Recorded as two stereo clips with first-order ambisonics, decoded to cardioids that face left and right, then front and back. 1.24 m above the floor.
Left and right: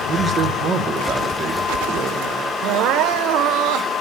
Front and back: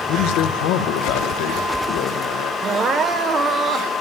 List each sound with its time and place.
0.1 s a man speaking: 25° right, 0.8 m
2.6 s crying: 120° right, 0.5 m